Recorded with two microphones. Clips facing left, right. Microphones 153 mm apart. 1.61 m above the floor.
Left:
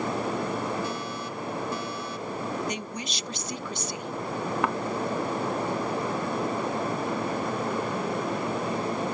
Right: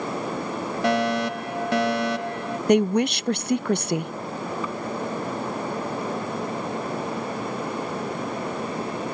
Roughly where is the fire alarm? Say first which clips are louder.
Right 11 dB; right.